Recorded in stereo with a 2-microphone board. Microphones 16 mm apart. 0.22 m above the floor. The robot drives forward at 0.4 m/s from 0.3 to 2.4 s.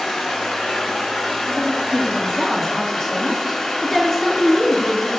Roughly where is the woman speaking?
Left.